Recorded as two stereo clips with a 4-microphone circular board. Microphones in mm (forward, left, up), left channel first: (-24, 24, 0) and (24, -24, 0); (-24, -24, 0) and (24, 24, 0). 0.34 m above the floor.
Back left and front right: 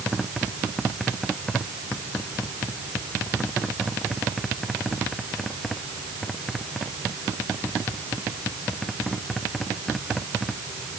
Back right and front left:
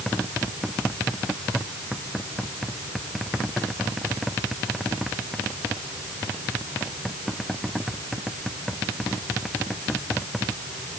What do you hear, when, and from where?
Only background noise.